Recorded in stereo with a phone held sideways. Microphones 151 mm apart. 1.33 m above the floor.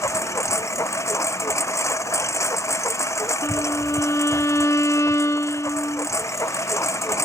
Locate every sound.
0.0 s a lawn mower: 20° left (ahead or behind)
3.4 s a violin: 20° left (ahead or behind)